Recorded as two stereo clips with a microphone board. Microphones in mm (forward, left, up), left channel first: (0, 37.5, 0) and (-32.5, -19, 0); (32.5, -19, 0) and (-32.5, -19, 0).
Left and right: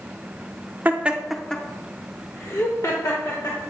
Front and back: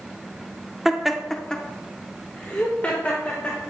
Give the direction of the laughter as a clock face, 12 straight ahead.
3 o'clock.